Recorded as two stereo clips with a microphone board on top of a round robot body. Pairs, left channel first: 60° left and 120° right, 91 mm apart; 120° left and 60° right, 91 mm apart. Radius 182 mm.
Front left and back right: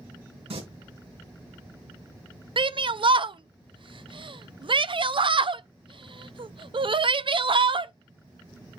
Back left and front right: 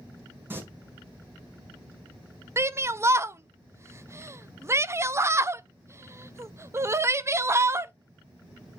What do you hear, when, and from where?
0.5 s singing: 125° right, 5 m
2.6 s a shout: 115° right, 0.9 m